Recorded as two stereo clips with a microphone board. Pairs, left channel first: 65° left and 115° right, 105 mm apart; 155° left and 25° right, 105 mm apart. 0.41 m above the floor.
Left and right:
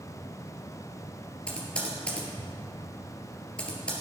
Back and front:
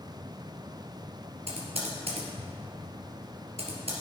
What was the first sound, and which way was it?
Typing on a keyboard, 10° right.